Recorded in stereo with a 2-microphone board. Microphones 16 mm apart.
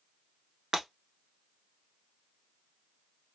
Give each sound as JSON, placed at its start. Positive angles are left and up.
{"t": 0.7, "sound": "breaking glass", "side_deg": -55, "distance_m": 1.1}